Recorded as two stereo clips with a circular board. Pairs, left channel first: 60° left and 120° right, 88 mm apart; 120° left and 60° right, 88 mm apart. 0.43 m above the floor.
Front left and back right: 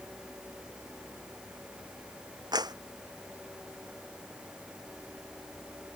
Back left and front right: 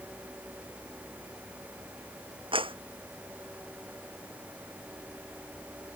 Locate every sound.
2.5 s a clap: 80° right